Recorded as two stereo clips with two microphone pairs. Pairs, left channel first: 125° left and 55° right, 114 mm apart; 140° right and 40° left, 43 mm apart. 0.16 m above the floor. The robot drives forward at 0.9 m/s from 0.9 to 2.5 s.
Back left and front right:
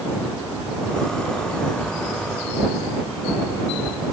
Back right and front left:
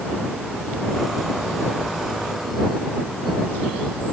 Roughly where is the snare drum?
No snare drum in this recording.